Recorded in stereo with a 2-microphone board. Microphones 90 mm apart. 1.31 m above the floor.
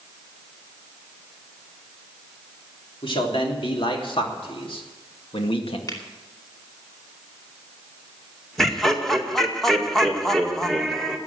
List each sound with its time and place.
3.0 s a man speaking: 75° left (ahead or behind), 3.5 m; by 5.8 s 85° left, 1.8 m
5.9 s a finger snap: 45° left (ahead or behind), 2.5 m
8.6 s laughter: 5° left (ahead or behind), 2 m